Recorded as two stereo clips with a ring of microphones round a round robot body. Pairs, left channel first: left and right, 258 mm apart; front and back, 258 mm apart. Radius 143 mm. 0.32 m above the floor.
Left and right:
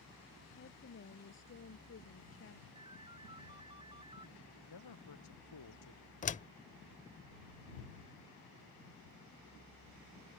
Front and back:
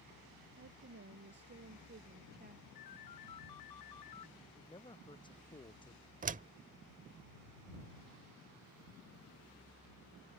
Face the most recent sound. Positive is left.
turn(degrees=135)